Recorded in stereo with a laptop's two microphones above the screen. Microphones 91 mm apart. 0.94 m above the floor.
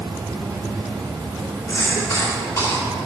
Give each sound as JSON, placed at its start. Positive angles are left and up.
{"t": 0.0, "sound": "an insect", "side_deg": -50, "distance_m": 2.5}
{"t": 1.7, "sound": "a cough", "side_deg": 30, "distance_m": 3.0}